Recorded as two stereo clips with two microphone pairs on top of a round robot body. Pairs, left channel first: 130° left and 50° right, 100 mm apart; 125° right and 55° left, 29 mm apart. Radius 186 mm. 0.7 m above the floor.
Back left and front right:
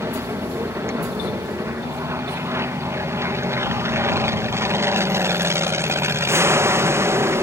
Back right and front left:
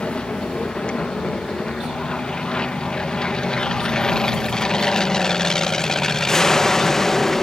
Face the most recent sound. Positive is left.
turn(degrees=-55)